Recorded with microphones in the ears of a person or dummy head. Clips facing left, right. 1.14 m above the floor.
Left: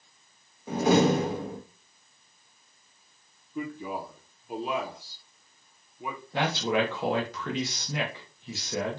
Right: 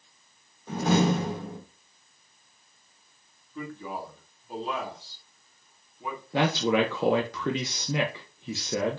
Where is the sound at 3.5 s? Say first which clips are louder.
Left 2 dB; 15° left (ahead or behind), 0.6 m.